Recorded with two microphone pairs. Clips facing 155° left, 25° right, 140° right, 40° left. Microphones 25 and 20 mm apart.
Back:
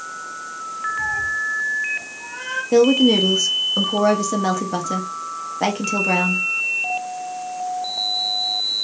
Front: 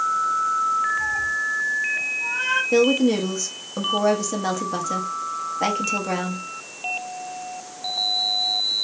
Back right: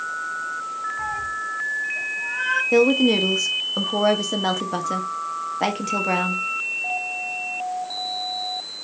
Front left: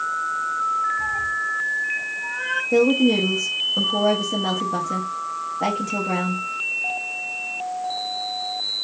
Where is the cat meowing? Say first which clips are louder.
Back 1 dB, front left 3 dB; 130° right, 2 m; by 2.6 s 95° right, 1.8 m.